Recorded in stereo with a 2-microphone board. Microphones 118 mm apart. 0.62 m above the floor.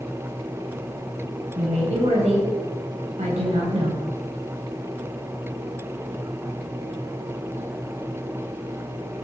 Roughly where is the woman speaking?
Right.